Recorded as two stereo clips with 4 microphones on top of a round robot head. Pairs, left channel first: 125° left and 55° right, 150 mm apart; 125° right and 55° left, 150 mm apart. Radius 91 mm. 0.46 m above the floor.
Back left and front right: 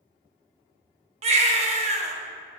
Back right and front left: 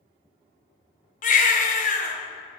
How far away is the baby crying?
About 1.2 m.